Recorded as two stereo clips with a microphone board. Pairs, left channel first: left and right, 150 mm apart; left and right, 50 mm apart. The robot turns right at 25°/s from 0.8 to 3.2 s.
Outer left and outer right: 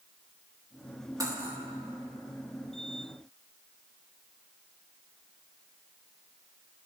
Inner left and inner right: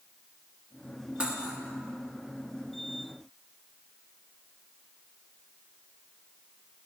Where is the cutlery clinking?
25° right (ahead or behind), 1.3 m; by 1.6 s 15° right (ahead or behind), 1.3 m.